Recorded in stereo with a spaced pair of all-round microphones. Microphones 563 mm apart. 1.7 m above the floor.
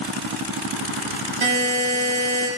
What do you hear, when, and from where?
1.4 s a buzzer: 55° right (ahead or behind), 1.8 m